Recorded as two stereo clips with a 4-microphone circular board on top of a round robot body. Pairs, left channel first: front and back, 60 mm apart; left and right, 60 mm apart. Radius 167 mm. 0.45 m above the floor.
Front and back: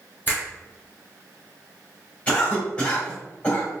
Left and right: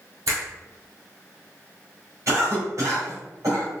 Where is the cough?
65° right, 2.0 m.